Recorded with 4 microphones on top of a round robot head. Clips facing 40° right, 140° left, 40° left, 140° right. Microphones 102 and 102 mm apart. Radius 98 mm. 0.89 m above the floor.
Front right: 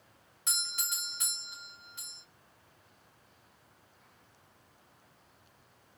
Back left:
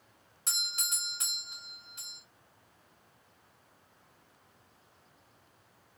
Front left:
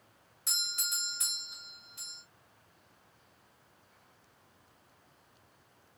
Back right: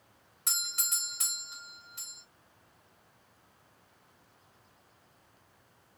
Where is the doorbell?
165° right, 3 m.